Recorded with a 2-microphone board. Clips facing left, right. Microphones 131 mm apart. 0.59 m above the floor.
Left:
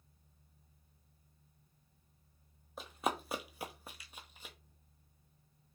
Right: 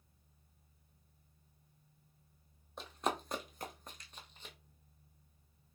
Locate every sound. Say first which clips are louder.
2.8 s running footsteps: even; 5° left (ahead or behind), 0.8 m